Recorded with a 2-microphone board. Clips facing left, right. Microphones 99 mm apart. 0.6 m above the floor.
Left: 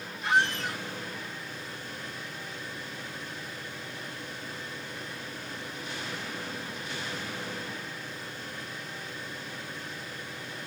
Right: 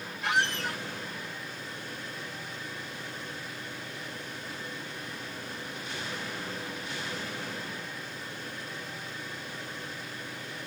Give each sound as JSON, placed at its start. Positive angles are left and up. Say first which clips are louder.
{"t": 0.2, "sound": "a squeak", "louder": "left 2 dB", "side_deg": -65, "distance_m": 1.3}